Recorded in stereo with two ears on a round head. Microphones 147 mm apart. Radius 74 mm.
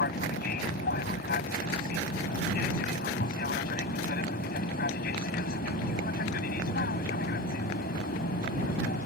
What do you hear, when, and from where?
0.0 s an aircraft: 60° left (ahead or behind)